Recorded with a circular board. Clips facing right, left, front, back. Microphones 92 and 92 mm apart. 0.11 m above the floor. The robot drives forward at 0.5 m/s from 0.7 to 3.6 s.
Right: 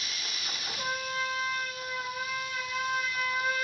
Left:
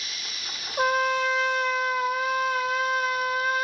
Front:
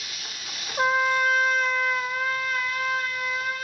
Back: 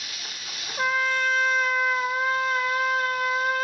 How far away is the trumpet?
About 1.0 m.